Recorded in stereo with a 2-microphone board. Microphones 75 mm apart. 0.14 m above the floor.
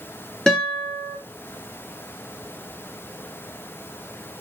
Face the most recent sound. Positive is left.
turn(degrees=10)  # may be behind; listen again after turning